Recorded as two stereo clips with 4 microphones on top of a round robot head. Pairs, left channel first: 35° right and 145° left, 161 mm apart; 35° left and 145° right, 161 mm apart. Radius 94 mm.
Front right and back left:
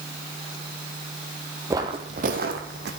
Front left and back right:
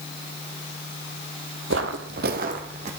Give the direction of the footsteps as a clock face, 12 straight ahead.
5 o'clock.